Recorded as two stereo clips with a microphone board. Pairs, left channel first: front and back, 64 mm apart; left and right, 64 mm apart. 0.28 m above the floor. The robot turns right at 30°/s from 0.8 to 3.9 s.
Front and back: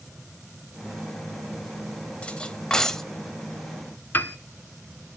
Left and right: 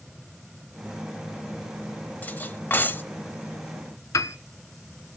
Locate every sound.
2.2 s cutlery clinking: 55° left, 0.6 m; by 3.0 s 80° left, 0.6 m
4.1 s a piano: 60° left, 0.6 m